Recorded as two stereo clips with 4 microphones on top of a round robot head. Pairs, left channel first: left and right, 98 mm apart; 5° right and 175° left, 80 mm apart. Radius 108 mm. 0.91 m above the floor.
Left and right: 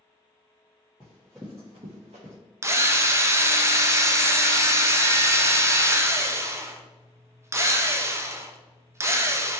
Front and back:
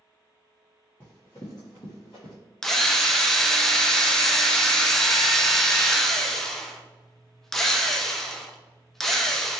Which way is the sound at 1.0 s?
45° left.